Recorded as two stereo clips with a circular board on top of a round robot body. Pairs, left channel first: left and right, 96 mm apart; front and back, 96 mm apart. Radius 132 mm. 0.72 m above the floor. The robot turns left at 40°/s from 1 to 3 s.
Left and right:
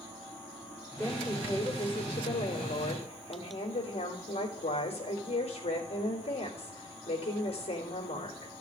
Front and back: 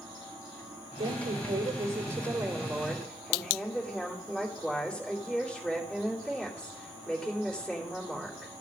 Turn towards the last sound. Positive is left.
turn(degrees=85)